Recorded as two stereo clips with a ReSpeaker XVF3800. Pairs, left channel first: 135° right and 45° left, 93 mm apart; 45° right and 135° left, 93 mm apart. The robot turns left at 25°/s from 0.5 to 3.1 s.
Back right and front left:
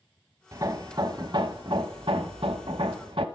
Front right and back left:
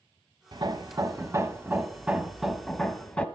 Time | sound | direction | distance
0.5 | hammering | 95° left | 0.9 m